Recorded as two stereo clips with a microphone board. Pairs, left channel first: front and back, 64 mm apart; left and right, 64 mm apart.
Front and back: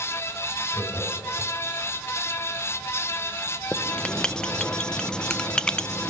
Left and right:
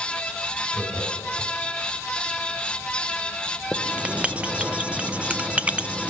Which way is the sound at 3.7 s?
60° right.